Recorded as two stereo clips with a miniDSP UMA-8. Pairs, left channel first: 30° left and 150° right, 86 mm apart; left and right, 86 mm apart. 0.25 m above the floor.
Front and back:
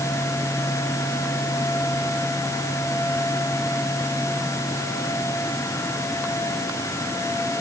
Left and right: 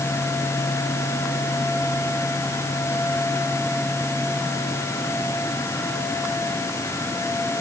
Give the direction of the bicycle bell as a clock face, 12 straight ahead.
I don't hear a bicycle bell.